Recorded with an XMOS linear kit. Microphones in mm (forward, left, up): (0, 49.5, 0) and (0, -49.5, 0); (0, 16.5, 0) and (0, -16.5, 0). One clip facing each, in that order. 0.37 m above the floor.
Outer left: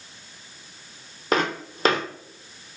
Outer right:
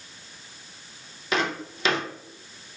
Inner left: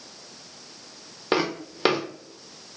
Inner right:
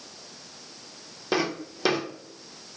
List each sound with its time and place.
1.3 s footsteps: 45° left (ahead or behind), 0.8 m